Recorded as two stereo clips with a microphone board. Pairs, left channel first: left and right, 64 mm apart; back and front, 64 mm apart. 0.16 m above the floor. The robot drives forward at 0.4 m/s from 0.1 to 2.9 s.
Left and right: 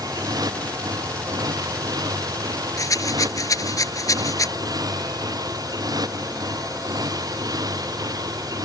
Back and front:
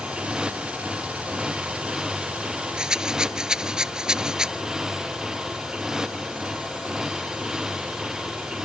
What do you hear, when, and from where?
0.0 s a motorcycle: 75° right; by 8.7 s 80° right
2.8 s a rattle: 75° left; by 4.5 s 80° left